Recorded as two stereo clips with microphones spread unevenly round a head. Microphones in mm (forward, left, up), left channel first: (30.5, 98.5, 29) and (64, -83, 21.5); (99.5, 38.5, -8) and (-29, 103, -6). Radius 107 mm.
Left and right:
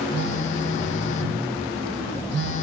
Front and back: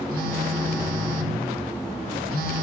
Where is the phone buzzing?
140° left, 3.5 m.